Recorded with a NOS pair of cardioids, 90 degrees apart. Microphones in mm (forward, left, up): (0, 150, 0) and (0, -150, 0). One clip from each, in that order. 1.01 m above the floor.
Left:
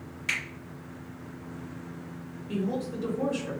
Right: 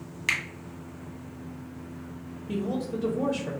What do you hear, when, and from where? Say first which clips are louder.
0.3 s a finger snap: right 3 dB; 60° right, 1.2 m
2.5 s a woman speaking: right 1 dB; 30° right, 0.8 m